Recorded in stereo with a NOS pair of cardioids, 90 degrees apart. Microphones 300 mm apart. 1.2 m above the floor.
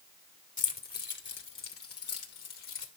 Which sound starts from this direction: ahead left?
Keys jangling, at 0.6 s.